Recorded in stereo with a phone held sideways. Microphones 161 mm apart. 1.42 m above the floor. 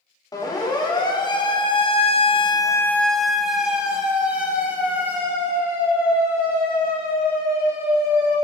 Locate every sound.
0.3 s a siren: 25° left (ahead or behind), 2.5 m; by 8.3 s 15° right (ahead or behind), 7.5 m